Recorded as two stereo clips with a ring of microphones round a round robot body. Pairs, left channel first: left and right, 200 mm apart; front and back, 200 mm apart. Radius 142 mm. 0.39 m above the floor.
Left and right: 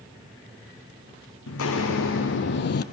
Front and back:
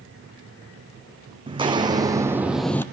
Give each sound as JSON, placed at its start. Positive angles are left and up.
{"t": 1.5, "sound": "footsteps", "azimuth_deg": 115, "distance_m": 1.2}